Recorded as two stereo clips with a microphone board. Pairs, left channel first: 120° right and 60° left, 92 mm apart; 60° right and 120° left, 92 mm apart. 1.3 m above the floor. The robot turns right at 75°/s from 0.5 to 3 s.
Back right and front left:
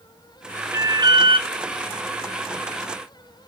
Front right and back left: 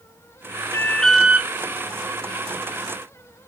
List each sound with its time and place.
0.7 s an alarm: straight ahead, 0.9 m; by 1.5 s 60° left, 0.9 m